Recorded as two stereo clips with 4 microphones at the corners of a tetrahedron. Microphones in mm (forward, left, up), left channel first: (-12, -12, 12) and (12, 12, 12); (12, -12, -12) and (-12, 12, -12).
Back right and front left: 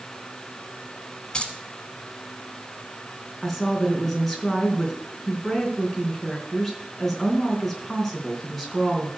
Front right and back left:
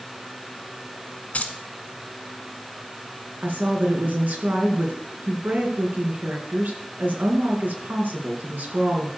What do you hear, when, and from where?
1.3 s keys jangling: 75° right, 1.7 m
3.4 s a woman speaking: 145° left, 3.5 m